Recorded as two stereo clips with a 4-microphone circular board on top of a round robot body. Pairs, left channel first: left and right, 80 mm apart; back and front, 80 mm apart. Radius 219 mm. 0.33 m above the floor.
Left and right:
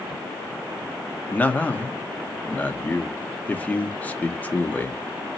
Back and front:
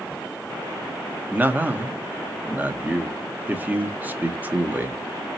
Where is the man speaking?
40° left, 0.9 m.